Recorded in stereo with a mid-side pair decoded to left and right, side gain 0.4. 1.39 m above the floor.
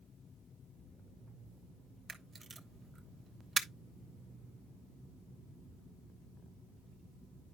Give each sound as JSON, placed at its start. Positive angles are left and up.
{"t": 2.1, "sound": "a camera shutter", "azimuth_deg": -40, "distance_m": 1.1}